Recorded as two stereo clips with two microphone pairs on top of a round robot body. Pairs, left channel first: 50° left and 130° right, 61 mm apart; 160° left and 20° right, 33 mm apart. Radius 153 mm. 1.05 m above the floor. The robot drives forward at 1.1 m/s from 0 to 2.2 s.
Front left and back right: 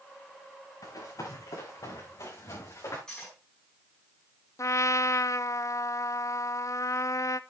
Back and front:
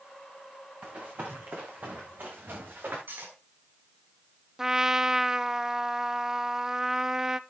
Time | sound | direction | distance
0.8 | running footsteps | 15° left | 5 m
3.1 | cutlery clinking | 30° right | 6 m
4.6 | a trumpet | 55° left | 0.8 m